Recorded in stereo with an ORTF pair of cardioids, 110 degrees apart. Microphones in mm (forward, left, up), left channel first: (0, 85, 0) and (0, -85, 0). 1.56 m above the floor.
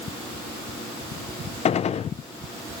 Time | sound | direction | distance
1.6 | a gunshot | 40° left | 0.8 m